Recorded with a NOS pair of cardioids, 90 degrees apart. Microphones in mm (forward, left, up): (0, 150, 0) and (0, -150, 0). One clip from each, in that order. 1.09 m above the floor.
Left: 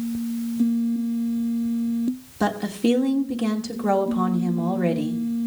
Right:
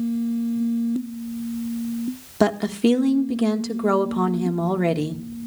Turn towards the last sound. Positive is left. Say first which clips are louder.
# right 4 dB
turn(degrees=-45)